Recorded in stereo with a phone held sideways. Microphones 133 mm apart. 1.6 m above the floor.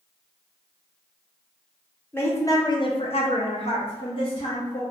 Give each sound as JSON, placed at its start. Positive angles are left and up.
{"t": 2.1, "sound": "a woman speaking", "side_deg": 15, "distance_m": 0.8}